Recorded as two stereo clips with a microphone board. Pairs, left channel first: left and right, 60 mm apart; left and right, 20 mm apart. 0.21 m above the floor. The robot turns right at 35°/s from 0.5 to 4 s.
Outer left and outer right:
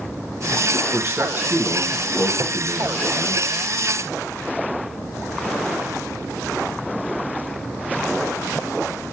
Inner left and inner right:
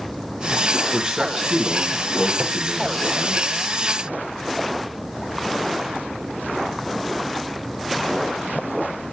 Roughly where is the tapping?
Right.